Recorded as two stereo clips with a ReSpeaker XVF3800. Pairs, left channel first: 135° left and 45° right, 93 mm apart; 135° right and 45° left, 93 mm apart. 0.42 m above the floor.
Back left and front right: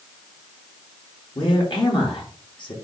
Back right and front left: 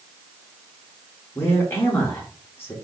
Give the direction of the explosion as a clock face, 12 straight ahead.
I don't hear an explosion.